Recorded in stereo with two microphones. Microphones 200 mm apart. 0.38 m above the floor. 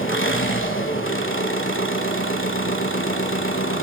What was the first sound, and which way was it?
An engine running, 80° left.